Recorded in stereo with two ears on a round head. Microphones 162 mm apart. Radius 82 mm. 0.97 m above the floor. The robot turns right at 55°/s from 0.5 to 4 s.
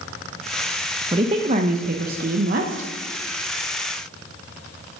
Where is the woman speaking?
150° right, 0.7 m; by 2.9 s 50° right, 0.7 m.